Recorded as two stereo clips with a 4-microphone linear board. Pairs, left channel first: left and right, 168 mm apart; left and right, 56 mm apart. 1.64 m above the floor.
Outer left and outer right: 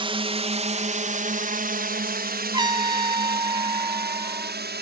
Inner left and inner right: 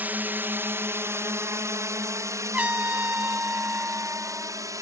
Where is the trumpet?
25° right (ahead or behind).